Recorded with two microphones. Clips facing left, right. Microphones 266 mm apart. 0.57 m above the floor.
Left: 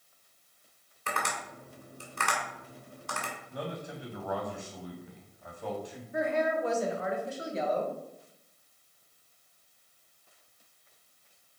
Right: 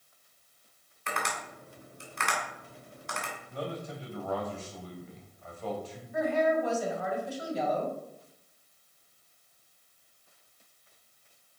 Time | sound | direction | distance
1.1 | tapping | 45° left (ahead or behind) | 2.5 m
3.5 | a man speaking | 15° left (ahead or behind) | 3 m
6.1 | a woman speaking | 30° left (ahead or behind) | 2.5 m